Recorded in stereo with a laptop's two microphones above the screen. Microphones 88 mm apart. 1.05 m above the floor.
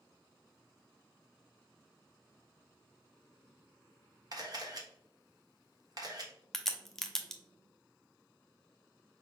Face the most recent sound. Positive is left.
turn(degrees=5)  # may be behind; listen again after turning